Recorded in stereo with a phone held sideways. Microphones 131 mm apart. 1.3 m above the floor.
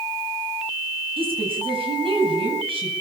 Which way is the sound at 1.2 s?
45° right (ahead or behind).